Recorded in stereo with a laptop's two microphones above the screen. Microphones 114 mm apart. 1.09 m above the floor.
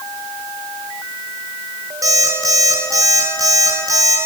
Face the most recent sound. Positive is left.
turn(degrees=-30)  # may be behind; listen again after turning